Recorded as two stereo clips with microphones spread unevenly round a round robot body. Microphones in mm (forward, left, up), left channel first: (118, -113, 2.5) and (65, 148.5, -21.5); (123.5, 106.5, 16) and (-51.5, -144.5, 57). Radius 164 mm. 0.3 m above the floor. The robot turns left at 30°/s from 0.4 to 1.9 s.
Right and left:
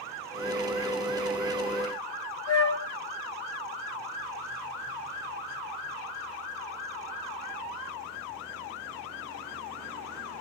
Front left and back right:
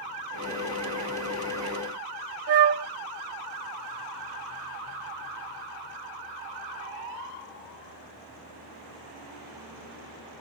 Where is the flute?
95° right, 1.9 m.